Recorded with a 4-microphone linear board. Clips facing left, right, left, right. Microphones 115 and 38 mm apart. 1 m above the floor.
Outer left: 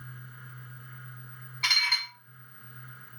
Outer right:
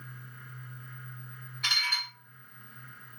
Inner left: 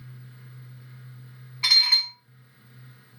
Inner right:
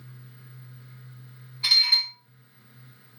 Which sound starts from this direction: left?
Dishes clattering, at 1.6 s.